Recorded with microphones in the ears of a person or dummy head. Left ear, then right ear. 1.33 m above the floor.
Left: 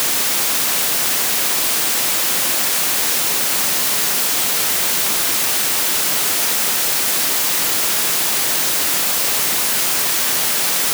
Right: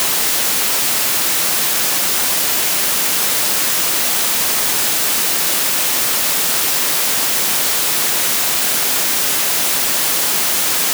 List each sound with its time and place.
Only background noise.